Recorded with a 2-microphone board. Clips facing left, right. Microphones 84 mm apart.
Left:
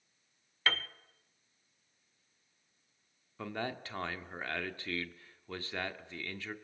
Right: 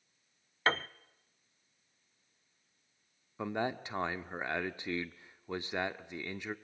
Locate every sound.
0.7 s a piano: 30° right (ahead or behind), 0.5 m
3.4 s a man speaking: 15° right (ahead or behind), 1.0 m